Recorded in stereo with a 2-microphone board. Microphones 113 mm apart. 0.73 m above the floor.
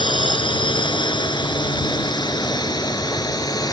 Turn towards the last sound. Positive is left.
turn(degrees=35)  # may be behind; listen again after turning